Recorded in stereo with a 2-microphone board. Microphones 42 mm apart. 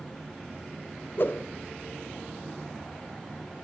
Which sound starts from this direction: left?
A whoosh, at 1.2 s.